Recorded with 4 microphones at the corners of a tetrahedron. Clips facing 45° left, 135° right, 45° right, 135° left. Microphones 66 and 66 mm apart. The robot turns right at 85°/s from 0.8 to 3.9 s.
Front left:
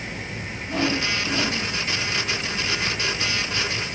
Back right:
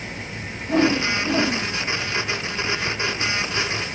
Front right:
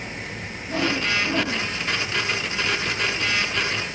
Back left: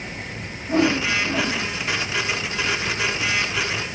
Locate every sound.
0.7 s a whoosh: 175° right, 0.5 m; by 1.7 s 105° right, 0.5 m